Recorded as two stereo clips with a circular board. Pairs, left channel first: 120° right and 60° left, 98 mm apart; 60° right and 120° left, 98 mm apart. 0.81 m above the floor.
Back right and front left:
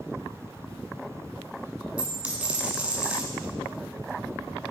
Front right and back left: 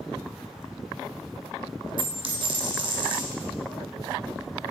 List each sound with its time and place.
2.0 s a dropped coin: 135° left, 1.4 m